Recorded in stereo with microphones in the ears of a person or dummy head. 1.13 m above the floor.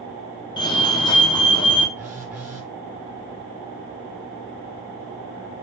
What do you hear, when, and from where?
0.6 s a fire alarm: 20° left (ahead or behind), 1.1 m
2.0 s a phone buzzing: 15° right (ahead or behind), 1.3 m